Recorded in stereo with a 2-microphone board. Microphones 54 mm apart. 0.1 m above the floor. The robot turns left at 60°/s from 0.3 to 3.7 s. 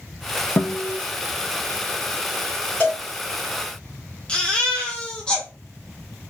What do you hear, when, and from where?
0.6 s a guitar: 45° left (ahead or behind), 0.6 m; by 1.0 s 20° left (ahead or behind), 0.6 m
2.8 s a cowbell: 25° left (ahead or behind), 2.0 m; by 3.0 s 30° left (ahead or behind), 2.0 m
4.3 s a baby crying: 20° left (ahead or behind), 1.2 m